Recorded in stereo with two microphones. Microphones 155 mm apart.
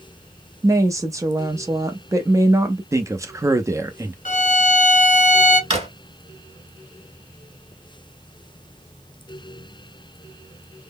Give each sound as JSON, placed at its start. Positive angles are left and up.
{"t": 0.6, "sound": "a woman speaking", "side_deg": -20, "distance_m": 0.6}
{"t": 2.9, "sound": "a man speaking", "side_deg": -20, "distance_m": 0.6}
{"t": 4.2, "sound": "a violin", "side_deg": 55, "distance_m": 0.9}
{"t": 5.7, "sound": "a drawer", "side_deg": -40, "distance_m": 1.8}